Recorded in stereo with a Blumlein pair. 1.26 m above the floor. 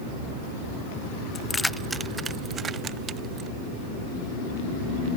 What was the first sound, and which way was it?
Keys jangling, 25° left.